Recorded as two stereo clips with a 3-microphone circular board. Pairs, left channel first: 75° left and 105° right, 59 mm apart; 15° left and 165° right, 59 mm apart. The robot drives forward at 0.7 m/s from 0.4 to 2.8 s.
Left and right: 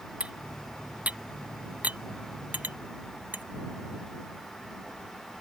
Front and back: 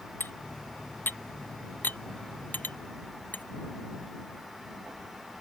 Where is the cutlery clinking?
35° right; by 3.5 s 45° right.